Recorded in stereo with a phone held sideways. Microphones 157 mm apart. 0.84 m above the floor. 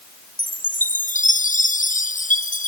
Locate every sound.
0.4 s a chime: 55° left (ahead or behind)